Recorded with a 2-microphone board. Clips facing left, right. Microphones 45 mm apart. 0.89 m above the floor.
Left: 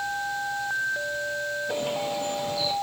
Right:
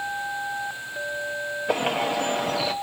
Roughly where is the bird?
Right.